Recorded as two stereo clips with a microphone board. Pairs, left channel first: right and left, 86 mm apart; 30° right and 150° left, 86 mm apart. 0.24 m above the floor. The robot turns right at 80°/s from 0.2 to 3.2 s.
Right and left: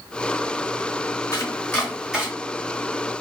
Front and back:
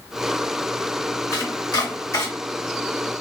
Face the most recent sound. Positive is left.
turn(degrees=90)